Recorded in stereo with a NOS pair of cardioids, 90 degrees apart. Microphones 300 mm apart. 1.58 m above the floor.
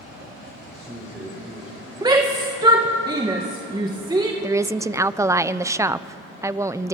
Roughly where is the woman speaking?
Ahead.